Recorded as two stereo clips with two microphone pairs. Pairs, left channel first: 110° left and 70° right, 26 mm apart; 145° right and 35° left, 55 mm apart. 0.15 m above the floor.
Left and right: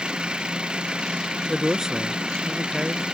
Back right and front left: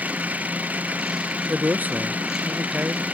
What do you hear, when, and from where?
0.0 s an engine running: 25° right
1.5 s a man speaking: 10° right